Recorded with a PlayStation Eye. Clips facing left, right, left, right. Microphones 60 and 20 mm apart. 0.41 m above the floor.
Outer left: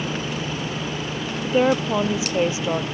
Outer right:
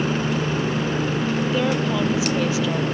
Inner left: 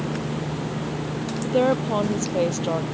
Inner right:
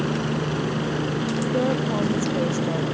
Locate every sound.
0.0 s a helicopter: 45° right (ahead or behind)
1.4 s a woman speaking: 25° left (ahead or behind)